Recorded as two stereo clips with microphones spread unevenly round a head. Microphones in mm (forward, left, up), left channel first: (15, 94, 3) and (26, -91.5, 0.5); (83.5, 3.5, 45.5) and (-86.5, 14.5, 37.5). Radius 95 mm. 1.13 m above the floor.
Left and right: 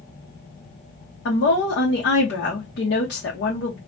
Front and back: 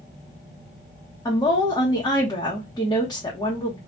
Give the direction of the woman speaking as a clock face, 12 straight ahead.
10 o'clock.